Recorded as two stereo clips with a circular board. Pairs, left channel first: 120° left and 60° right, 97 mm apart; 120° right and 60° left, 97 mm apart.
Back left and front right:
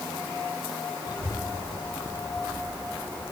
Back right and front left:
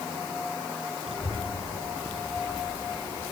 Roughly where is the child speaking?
Left.